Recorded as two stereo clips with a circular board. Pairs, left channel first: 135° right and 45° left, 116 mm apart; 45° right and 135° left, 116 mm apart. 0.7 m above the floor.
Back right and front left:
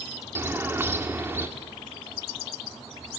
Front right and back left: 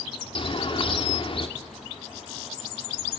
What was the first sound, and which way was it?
A bird, 20° right.